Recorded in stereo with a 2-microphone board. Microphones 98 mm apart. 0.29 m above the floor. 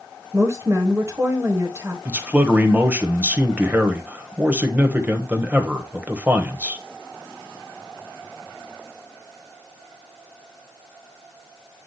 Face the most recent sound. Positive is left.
turn(degrees=-20)  # may be behind; listen again after turning